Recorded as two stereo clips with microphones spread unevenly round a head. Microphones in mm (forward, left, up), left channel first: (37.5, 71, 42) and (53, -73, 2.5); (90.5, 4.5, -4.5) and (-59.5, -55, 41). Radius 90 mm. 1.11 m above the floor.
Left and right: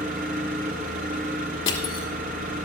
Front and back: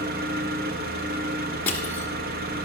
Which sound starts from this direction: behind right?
An engine running, at 0.0 s.